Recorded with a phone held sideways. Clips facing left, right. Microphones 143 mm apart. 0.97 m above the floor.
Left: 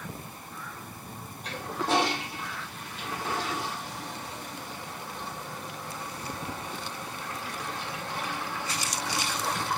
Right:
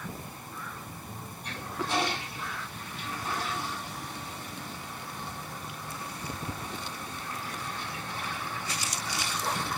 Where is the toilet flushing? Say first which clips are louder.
Left 5 dB; 80° left, 2.5 m.